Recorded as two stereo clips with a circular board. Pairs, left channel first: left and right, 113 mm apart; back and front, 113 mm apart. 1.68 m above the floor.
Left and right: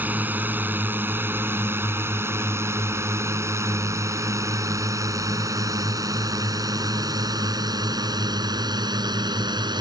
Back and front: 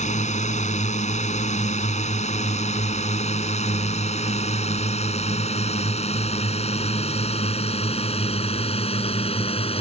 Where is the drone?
165° right; by 9.8 s 145° right.